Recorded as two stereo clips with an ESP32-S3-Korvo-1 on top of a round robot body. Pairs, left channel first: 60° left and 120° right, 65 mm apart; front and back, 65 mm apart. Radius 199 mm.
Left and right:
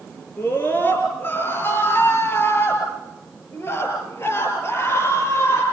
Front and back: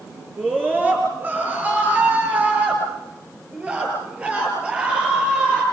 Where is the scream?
115° left, 9 m; by 5.6 s 105° left, 12.5 m.